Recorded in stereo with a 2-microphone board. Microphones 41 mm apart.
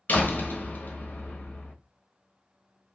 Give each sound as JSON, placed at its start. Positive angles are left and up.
{"t": 0.1, "sound": "a door slam", "side_deg": 45, "distance_m": 1.1}